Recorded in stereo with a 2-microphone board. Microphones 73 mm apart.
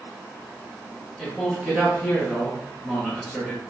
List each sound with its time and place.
1.2 s a man speaking: 5° right (ahead or behind), 1.8 m